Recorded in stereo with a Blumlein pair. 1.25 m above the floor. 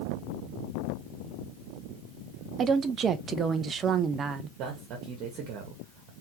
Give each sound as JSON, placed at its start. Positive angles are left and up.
{"t": 2.6, "sound": "a woman speaking", "azimuth_deg": -25, "distance_m": 0.8}
{"t": 4.6, "sound": "a man speaking", "azimuth_deg": -35, "distance_m": 1.5}